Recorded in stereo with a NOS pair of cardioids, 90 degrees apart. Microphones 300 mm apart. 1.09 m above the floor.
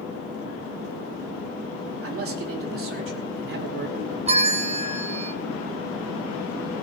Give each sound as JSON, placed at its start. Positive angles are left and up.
{"t": 2.0, "sound": "a man speaking", "azimuth_deg": -50, "distance_m": 3.0}
{"t": 4.3, "sound": "a bell", "azimuth_deg": -20, "distance_m": 0.9}